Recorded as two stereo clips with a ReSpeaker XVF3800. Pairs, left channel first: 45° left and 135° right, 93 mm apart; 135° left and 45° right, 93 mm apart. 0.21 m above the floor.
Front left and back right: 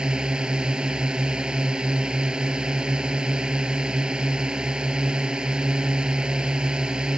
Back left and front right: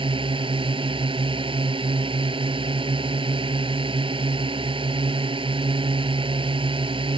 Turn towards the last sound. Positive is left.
turn(degrees=-55)